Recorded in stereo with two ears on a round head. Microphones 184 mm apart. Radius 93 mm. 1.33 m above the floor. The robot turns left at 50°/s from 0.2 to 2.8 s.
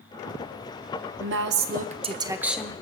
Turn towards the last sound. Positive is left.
turn(degrees=170)